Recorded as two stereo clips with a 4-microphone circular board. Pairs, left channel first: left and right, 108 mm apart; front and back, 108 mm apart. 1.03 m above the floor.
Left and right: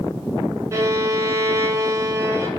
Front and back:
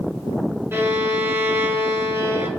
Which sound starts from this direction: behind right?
A violin, at 0.7 s.